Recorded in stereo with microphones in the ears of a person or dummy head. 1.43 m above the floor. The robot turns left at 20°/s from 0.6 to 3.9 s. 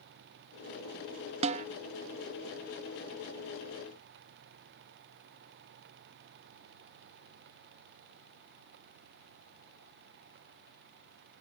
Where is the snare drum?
35° right (ahead or behind); by 1.7 s 40° right (ahead or behind).